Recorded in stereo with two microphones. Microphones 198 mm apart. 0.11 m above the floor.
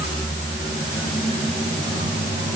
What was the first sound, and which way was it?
Only background noise.